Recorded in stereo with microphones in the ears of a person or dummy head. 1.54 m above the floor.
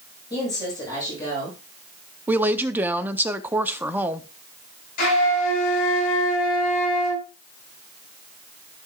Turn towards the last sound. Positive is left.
turn(degrees=55)  # may be behind; listen again after turning